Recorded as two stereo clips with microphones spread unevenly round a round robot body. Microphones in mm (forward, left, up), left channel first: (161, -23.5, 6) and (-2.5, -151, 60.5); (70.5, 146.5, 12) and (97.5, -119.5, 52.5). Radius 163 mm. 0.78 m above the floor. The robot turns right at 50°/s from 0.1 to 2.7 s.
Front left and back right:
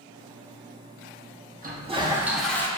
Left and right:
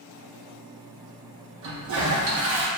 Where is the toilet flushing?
85° right, 0.9 m; by 2.7 s 35° right, 0.9 m.